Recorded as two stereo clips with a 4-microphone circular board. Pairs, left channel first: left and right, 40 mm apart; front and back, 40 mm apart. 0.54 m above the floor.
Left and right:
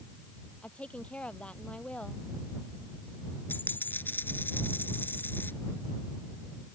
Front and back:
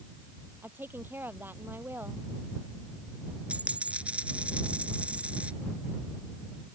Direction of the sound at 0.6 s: 150° left.